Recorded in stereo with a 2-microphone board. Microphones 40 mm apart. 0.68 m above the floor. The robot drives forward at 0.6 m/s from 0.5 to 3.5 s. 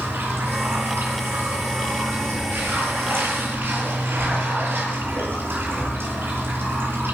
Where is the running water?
90° right, 8.5 m; by 7.2 s 75° right (ahead or behind), 8.5 m.